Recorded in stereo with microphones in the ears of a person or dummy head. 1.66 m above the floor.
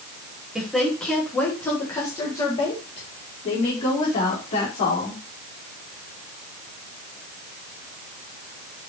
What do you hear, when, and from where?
0.6 s a woman speaking: 5° left (ahead or behind), 2.5 m; by 5.2 s 45° left (ahead or behind), 5 m